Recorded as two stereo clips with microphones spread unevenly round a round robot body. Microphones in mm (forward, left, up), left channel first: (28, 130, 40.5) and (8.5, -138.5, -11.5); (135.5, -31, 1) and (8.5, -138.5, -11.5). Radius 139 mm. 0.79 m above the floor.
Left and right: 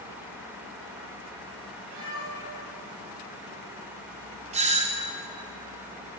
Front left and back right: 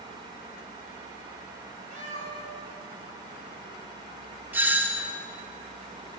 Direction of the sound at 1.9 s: 95° right.